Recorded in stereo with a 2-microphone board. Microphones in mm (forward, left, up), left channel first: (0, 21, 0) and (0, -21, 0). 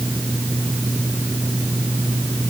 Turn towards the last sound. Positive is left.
No sound to turn to.